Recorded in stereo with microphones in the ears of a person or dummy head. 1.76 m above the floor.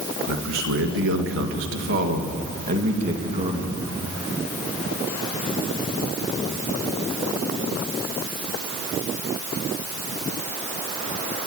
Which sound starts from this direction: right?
A man speaking, at 0.3 s.